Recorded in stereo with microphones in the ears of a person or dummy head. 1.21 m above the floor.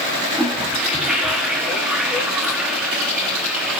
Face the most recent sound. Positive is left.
turn(degrees=-5)  # may be behind; listen again after turning